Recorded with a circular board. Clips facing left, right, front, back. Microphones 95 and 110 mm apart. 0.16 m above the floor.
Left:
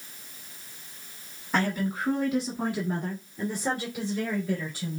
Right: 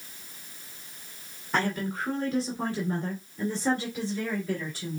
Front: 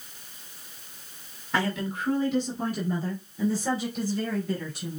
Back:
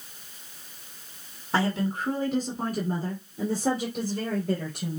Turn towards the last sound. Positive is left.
turn(degrees=160)